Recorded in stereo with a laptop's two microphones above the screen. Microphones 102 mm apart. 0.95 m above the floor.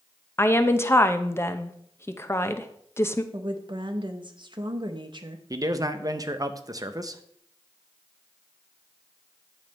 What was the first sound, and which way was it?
A woman speaking, 25° left (ahead or behind).